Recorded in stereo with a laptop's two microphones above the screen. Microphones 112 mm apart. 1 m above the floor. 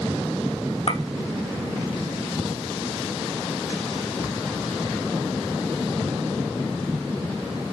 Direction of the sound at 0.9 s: 65° left (ahead or behind).